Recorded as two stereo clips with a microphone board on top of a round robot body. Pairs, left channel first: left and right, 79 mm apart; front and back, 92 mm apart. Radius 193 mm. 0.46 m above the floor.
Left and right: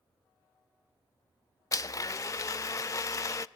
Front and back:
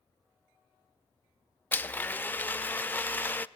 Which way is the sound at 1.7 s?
65° left.